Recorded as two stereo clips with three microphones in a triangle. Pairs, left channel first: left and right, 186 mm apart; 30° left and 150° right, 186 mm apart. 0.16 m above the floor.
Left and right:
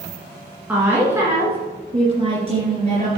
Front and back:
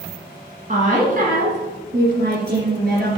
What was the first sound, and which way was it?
A woman speaking, 175° right.